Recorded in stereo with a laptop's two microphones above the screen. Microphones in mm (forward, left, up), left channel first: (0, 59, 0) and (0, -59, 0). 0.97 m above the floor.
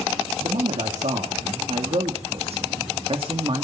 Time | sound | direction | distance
0.4 | a man speaking | 70° right (ahead or behind) | 2.5 m